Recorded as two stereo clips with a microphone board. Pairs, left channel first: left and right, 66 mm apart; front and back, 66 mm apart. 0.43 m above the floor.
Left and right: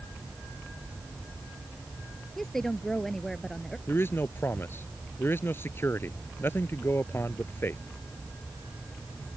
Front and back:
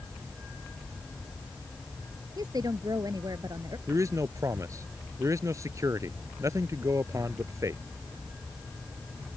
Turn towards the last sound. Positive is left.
turn(degrees=145)